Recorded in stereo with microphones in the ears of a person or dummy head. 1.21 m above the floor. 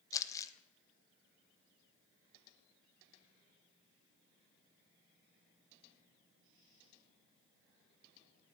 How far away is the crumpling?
About 1.0 m.